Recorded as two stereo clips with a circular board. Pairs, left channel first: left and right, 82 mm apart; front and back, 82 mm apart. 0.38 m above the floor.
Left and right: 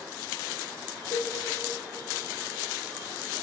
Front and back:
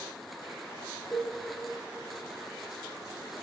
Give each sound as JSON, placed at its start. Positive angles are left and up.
{"t": 1.1, "sound": "a cowbell", "azimuth_deg": 65, "distance_m": 4.5}